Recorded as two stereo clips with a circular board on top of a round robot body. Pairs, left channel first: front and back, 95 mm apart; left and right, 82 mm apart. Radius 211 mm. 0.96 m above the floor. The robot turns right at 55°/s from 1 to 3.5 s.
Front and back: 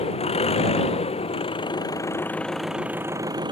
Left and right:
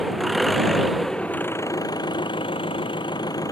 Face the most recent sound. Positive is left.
turn(degrees=140)